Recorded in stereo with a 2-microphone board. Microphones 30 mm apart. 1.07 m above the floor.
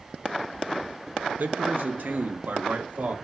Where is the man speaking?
65° right (ahead or behind), 0.9 m; by 3.1 s 75° right (ahead or behind), 2 m.